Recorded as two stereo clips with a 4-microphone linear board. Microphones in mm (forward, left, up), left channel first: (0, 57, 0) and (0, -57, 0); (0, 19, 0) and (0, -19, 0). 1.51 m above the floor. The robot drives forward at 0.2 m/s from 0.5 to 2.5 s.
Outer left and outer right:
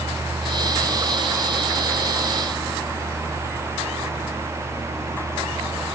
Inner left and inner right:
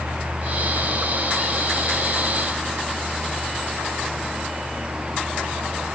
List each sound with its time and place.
Only background noise.